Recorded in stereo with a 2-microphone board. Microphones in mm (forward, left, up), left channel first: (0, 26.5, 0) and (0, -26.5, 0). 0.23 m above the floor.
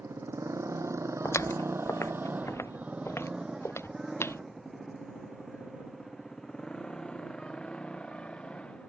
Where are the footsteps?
75° left (ahead or behind); by 4.4 s 60° left (ahead or behind).